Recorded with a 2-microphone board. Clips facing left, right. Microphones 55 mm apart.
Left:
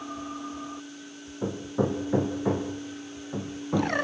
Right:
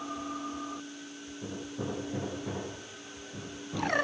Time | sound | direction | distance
1.4 | hammering | 55° left (ahead or behind) | 4.5 m